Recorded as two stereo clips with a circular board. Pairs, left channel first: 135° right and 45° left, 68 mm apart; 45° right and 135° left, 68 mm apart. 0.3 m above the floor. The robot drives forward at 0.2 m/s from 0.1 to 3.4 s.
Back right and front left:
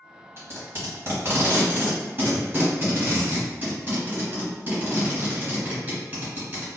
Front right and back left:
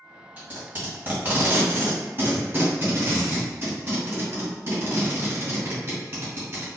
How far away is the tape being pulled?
About 1.9 m.